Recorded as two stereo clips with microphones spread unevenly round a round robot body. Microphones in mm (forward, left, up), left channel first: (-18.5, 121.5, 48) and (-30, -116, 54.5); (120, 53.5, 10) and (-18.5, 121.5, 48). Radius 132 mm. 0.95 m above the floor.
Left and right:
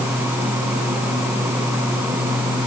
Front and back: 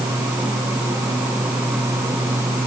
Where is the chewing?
No chewing in this recording.